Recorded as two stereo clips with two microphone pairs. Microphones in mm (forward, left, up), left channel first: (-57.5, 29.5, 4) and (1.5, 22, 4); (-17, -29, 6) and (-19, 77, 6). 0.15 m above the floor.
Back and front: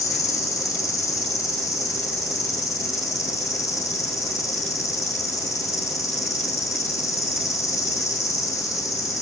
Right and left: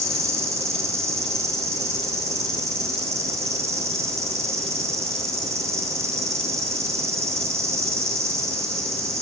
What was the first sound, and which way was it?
An insect, 155° left.